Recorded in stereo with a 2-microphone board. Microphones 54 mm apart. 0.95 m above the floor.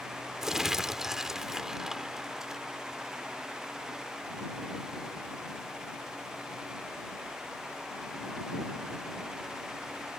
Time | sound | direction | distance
0.4 | crumpling | 10° right (ahead or behind) | ?